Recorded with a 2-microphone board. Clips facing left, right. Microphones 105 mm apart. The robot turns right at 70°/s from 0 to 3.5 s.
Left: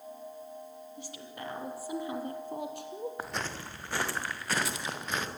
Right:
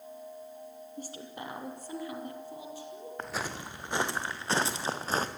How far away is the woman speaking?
About 4 m.